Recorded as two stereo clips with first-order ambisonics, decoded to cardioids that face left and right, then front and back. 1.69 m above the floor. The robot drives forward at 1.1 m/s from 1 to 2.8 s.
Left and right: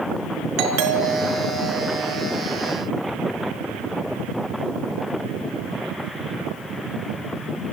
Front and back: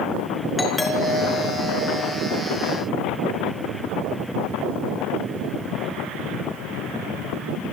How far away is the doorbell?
About 3.5 m.